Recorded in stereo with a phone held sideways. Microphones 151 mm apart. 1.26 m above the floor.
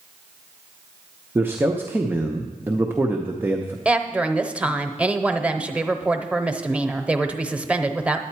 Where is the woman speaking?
10° right (ahead or behind), 0.7 m.